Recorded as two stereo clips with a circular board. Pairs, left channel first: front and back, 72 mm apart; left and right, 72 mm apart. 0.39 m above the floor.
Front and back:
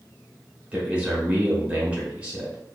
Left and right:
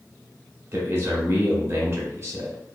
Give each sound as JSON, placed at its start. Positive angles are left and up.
{"t": 0.7, "sound": "a man speaking", "azimuth_deg": -115, "distance_m": 1.0}